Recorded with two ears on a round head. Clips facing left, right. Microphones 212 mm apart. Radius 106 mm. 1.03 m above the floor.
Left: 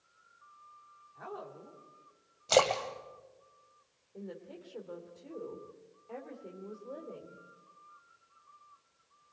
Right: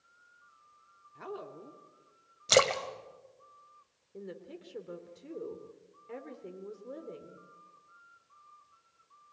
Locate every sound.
1.1 s a woman speaking: 40° right (ahead or behind), 2.5 m
2.5 s a splash: 25° right (ahead or behind), 1.7 m
4.1 s a woman speaking: 30° right (ahead or behind), 2.5 m